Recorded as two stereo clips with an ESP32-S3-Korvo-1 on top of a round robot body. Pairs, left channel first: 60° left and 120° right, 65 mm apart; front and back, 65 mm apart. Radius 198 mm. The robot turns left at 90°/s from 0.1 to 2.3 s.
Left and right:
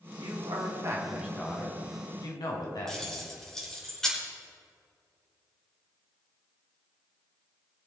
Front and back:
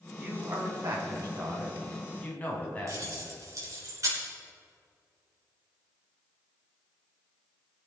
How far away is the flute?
I don't hear a flute.